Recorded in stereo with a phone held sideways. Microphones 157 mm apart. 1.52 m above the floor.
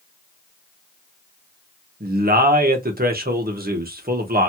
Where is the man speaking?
75° right (ahead or behind), 1.1 m.